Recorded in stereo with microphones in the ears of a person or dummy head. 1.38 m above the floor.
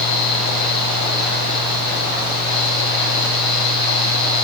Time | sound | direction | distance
0.0 | a fan | 60° left (ahead or behind) | 7 m